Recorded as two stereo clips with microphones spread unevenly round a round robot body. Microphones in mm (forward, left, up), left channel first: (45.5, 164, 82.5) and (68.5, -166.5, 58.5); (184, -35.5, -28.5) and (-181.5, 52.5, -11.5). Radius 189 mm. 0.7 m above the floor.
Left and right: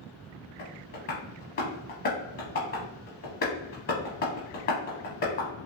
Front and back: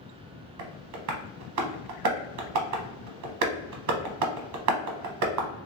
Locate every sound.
0.6 s tapping: 150° left, 0.7 m